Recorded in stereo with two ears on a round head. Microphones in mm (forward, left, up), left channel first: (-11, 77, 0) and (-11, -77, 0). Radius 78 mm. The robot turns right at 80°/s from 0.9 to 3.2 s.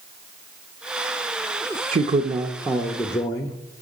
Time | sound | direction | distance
1.9 | a man speaking | 75° right | 0.5 m